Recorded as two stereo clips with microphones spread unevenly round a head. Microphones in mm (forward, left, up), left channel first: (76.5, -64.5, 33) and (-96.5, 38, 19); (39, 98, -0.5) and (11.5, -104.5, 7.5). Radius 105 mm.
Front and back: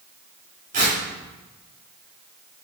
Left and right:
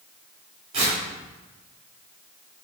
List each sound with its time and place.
0.7 s tearing paper: 155° right, 3.5 m